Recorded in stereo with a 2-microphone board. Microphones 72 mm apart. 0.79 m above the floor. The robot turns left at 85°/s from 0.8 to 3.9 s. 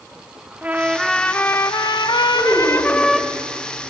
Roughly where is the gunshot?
No gunshot in this recording.